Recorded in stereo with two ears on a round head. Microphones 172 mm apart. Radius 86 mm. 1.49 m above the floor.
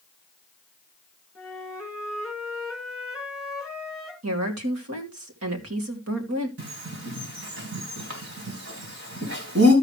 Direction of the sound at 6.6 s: 70° right (ahead or behind).